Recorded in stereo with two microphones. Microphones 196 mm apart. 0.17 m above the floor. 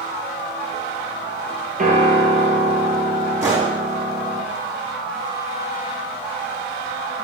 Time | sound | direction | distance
1.8 | a piano | 40° right (ahead or behind) | 3.5 m
3.4 | a gunshot | 15° right (ahead or behind) | 4 m